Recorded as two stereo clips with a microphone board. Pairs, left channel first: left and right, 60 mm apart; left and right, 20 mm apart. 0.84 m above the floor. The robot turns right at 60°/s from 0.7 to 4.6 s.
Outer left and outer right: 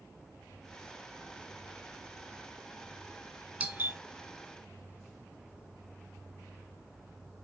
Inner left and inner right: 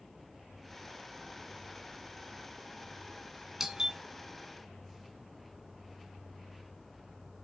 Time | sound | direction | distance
3.6 | a doorbell | 20° right (ahead or behind) | 1.3 m